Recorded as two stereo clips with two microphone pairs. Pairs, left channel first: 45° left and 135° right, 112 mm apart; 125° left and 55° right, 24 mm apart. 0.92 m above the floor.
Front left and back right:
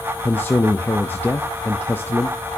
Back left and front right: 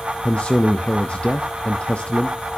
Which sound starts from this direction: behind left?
A man speaking, at 0.2 s.